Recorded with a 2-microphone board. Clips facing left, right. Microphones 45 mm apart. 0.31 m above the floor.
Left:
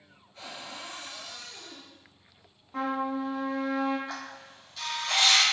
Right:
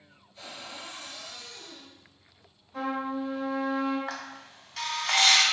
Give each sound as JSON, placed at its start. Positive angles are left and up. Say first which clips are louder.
{"t": 0.3, "sound": "a cupboard door", "louder": "left 1 dB", "side_deg": 45, "distance_m": 1.6}
{"t": 2.7, "sound": "a trumpet", "louder": "left 1 dB", "side_deg": 45, "distance_m": 1.1}
{"t": 4.1, "sound": "a camera shutter", "louder": "right 1 dB", "side_deg": -65, "distance_m": 0.6}